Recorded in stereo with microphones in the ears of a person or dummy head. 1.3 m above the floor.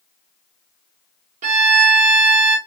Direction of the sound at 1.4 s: 40° right (ahead or behind).